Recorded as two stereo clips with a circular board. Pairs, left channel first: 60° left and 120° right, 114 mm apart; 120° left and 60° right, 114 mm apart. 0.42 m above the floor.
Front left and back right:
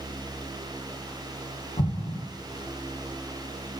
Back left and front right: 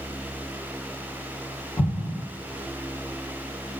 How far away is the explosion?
About 1.1 m.